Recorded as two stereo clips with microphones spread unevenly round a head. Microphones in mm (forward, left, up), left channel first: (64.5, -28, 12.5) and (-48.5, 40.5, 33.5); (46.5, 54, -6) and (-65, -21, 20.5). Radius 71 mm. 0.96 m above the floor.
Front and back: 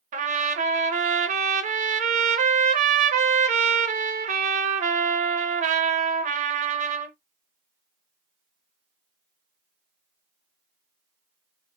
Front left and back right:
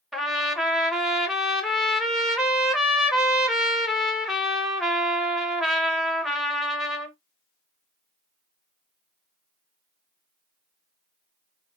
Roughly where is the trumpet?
Behind left.